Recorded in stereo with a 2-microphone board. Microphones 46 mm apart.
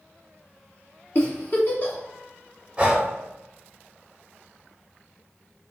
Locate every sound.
1.1 s a giggle: 45° left (ahead or behind), 0.9 m
2.8 s breathing: 25° right (ahead or behind), 0.9 m